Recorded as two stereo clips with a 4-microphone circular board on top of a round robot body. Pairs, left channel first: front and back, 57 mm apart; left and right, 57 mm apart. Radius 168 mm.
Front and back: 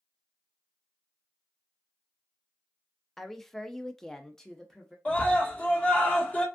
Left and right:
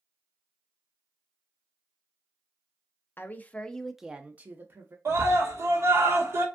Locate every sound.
3.2 s a woman speaking: 85° left, 0.7 m; by 5.0 s 80° right, 0.8 m
5.0 s a scream: 60° right, 1.4 m